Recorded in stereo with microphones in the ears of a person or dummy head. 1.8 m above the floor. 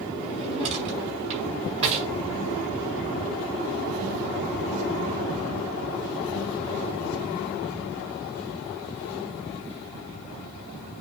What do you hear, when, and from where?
0.2 s a drawer: 35° right (ahead or behind), 5 m